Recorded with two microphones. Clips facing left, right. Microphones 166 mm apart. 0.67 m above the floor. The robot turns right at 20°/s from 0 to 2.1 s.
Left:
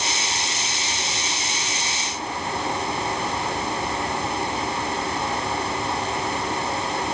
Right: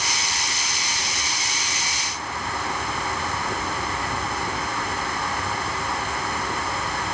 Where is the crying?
No crying in this recording.